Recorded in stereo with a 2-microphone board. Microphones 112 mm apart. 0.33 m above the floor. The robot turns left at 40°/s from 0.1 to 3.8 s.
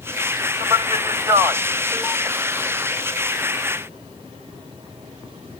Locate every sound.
0.6 s a man speaking: 45° right (ahead or behind), 1.8 m; by 2.3 s centre (ahead or behind), 1.8 m